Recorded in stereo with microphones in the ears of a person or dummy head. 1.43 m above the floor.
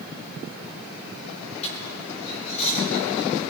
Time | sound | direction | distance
1.6 | a dropped coin | 40° left (ahead or behind) | 5 m